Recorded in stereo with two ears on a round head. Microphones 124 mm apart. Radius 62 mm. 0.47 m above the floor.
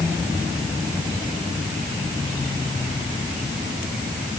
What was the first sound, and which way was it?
Only background noise.